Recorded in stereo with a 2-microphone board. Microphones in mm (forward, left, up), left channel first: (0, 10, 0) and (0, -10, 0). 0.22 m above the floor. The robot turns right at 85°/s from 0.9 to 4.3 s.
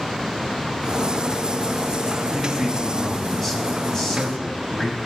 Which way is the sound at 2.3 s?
90° right.